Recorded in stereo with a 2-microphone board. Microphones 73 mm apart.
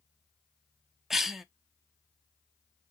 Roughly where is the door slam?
No door slam in this recording.